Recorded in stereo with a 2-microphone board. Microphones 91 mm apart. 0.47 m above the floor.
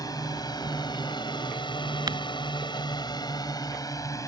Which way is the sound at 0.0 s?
45° left (ahead or behind).